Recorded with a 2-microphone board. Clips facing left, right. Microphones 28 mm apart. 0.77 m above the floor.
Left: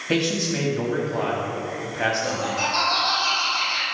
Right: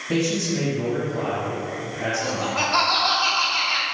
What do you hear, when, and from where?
0.1 s a man speaking: 50° left (ahead or behind), 1.1 m
2.2 s laughter: 65° right (ahead or behind), 2.0 m